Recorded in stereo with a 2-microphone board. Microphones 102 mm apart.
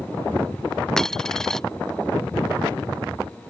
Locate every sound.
1.0 s a dropped coin: 5° left (ahead or behind)